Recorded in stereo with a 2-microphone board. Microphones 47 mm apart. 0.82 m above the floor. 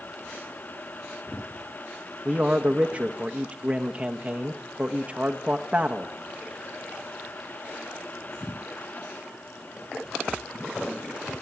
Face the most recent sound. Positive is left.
turn(degrees=-30)  # may be behind; listen again after turning